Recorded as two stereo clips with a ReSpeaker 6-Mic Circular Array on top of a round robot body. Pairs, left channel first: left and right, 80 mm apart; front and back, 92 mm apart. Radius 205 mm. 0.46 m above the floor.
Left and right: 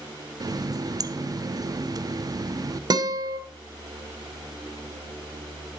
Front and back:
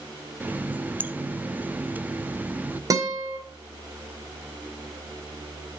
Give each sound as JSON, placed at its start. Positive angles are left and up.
{"t": 0.4, "sound": "a running tap", "azimuth_deg": -110, "distance_m": 0.9}
{"t": 2.9, "sound": "a guitar", "azimuth_deg": -130, "distance_m": 1.9}